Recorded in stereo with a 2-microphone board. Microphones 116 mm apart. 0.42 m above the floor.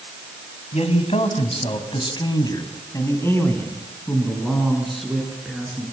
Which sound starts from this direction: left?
A man speaking, at 0.7 s.